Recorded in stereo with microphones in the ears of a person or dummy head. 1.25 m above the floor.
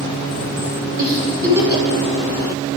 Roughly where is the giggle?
Right.